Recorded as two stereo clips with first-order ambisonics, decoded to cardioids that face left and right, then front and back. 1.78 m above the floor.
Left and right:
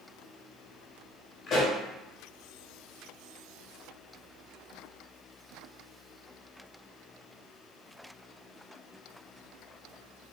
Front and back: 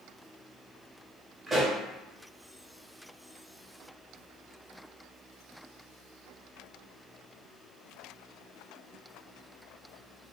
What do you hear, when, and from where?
1.5 s a pop: 110° left, 1.5 m